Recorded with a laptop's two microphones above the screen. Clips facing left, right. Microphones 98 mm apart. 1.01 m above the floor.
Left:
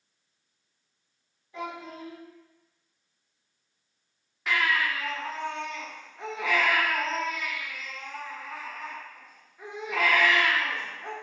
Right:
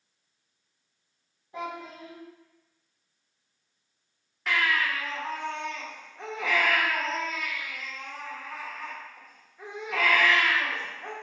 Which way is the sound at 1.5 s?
30° right (ahead or behind).